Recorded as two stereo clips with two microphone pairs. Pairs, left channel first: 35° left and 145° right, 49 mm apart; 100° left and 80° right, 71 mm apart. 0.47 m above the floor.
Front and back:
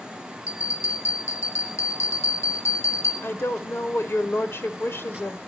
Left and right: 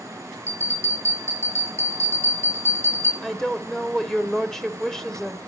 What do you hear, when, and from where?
0.5 s a bell: 45° left, 7 m
3.2 s a woman speaking: 20° left, 1.6 m